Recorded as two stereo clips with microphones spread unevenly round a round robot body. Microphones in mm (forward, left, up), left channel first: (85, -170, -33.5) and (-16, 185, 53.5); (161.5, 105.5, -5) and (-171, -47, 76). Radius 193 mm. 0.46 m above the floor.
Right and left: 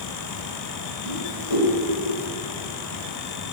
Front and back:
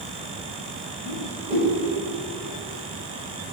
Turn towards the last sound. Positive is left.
turn(degrees=-85)